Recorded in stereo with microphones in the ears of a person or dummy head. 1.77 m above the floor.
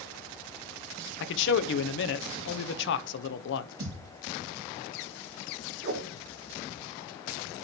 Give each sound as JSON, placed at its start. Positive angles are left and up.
{"t": 1.2, "sound": "a man speaking", "side_deg": 60, "distance_m": 0.9}
{"t": 3.8, "sound": "a thud", "side_deg": -50, "distance_m": 4.5}
{"t": 5.8, "sound": "a whoosh", "side_deg": -65, "distance_m": 4.0}